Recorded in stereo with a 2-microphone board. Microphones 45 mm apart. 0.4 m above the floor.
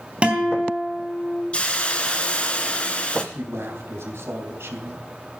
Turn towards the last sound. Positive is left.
turn(degrees=-65)  # may be behind; listen again after turning